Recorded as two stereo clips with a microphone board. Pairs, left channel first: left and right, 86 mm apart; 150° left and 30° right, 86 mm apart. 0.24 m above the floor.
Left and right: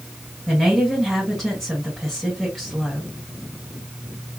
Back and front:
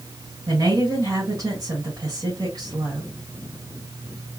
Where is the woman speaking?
5° left, 2 m.